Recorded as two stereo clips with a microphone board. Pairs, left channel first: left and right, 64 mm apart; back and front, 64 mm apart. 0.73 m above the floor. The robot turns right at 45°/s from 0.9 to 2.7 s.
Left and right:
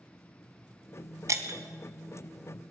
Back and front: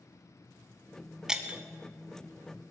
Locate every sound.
1.3 s breaking glass: 80° right, 0.9 m; by 1.6 s 65° right, 0.9 m